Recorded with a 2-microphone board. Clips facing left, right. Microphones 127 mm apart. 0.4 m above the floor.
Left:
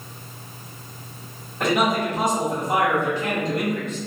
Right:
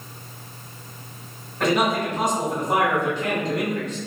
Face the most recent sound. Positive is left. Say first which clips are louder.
# even
turn(degrees=10)  # may be behind; listen again after turning